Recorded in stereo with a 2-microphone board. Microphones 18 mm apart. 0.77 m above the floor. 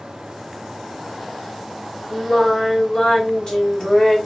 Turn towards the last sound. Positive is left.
turn(degrees=40)  # may be behind; listen again after turning